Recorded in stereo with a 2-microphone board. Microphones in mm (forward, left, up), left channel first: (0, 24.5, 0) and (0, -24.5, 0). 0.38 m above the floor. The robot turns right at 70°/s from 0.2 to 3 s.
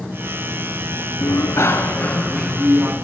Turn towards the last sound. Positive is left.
turn(degrees=-145)